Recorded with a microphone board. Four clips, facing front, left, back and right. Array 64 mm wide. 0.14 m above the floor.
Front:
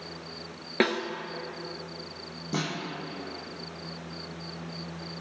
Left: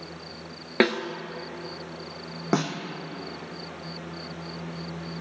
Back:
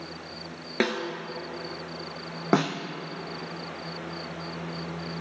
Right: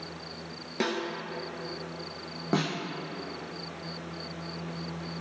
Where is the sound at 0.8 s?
85° left, 1.1 m.